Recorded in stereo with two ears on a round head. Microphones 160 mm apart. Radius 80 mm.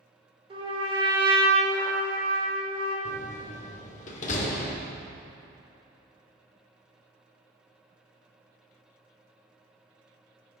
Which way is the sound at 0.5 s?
30° right (ahead or behind).